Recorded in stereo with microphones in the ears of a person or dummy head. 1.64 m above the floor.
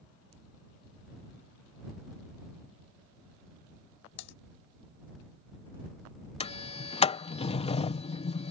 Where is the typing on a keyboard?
60° left (ahead or behind).